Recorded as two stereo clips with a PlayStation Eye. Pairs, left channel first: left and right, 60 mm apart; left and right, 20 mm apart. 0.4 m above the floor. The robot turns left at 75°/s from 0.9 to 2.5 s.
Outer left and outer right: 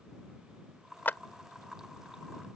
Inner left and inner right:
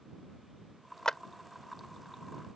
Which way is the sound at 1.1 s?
35° left (ahead or behind).